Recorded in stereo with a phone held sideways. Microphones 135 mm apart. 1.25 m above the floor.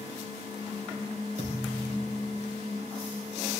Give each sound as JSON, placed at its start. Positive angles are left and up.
{"t": 1.4, "sound": "a thud", "side_deg": -65, "distance_m": 3.0}